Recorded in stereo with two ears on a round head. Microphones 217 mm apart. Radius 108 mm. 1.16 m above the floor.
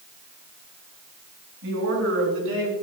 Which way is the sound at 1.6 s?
60° right (ahead or behind).